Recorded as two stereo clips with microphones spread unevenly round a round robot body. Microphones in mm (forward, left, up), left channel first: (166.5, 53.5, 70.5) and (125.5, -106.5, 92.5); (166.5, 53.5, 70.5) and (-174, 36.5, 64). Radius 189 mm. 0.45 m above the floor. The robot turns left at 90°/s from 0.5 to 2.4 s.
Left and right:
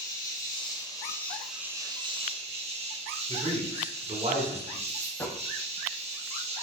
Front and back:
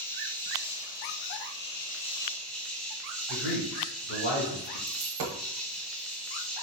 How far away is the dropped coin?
About 0.8 m.